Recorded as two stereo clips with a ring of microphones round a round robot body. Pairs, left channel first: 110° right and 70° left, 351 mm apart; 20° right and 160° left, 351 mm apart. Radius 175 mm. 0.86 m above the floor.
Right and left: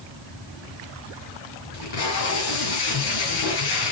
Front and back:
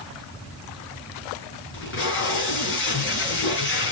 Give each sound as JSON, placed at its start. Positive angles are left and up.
{"t": 1.7, "sound": "tape being pulled", "azimuth_deg": -80, "distance_m": 5.0}